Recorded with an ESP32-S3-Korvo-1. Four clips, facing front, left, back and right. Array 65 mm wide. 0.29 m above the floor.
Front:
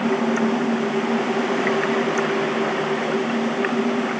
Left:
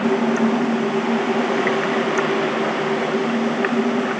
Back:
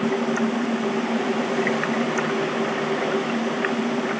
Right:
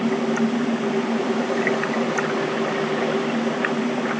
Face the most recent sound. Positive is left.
No sound to turn to.